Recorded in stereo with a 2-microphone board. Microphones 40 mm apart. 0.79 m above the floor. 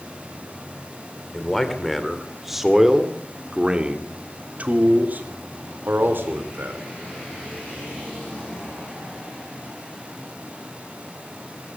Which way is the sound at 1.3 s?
5° left (ahead or behind).